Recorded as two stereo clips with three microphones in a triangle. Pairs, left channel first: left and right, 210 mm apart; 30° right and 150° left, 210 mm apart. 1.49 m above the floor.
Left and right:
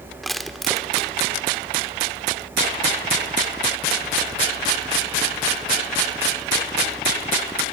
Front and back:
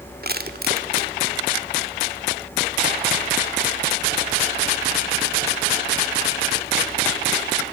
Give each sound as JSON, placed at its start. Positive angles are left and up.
{"t": 0.2, "sound": "crushing", "azimuth_deg": 180, "distance_m": 1.7}